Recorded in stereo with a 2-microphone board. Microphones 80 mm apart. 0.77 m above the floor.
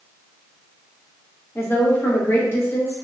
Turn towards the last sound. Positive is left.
turn(degrees=30)  # may be behind; listen again after turning